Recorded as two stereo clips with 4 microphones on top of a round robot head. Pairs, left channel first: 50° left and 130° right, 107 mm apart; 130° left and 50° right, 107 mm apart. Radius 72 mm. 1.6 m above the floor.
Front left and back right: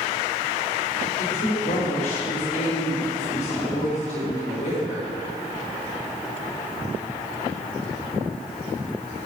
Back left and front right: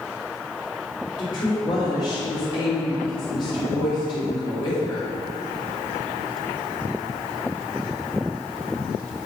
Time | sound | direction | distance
1.2 | a woman speaking | 75° left | 3.5 m